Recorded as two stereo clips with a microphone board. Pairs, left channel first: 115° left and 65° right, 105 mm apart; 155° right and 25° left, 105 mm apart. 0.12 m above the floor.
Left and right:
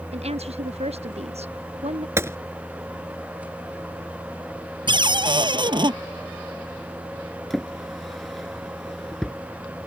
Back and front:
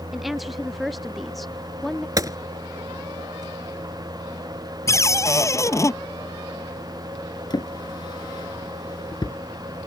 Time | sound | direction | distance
0.1 | a woman speaking | 65° right | ?
2.2 | a gunshot | 15° right | ?
4.9 | a cupboard door | 100° right | ?
7.5 | a drawer | 160° right | ?